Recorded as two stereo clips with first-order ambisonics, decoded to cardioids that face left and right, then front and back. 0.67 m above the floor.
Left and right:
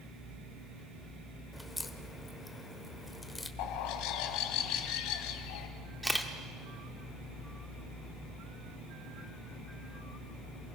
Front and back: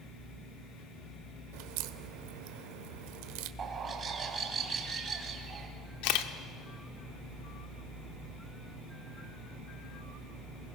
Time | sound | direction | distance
1.5 | a crack | 170° left | 0.9 m
3.6 | a bird | 115° left | 1.9 m
6.0 | a camera shutter | straight ahead | 1.2 m